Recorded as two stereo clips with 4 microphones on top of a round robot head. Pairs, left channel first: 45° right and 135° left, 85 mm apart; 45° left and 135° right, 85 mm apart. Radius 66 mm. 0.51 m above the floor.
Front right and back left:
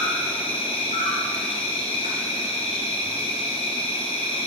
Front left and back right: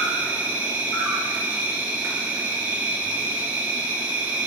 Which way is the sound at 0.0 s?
65° right.